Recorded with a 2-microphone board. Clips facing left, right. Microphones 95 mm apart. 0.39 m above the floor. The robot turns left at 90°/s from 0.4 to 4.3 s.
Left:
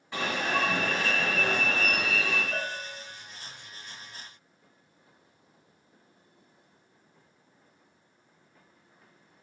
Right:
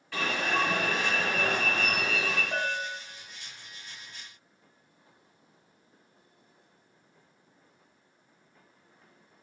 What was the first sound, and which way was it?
An alarm, 25° left.